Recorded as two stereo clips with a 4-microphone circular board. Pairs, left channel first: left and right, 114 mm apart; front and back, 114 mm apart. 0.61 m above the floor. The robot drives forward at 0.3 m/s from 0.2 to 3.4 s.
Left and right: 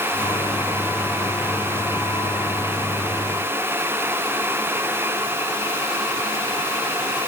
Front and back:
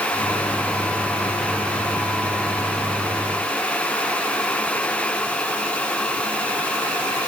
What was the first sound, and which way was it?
Only background noise.